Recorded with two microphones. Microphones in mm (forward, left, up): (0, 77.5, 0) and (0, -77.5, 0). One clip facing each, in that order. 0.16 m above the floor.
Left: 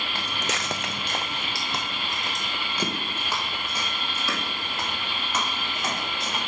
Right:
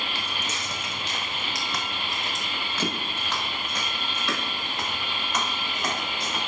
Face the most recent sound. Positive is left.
turn(degrees=0)  # may be behind; listen again after turning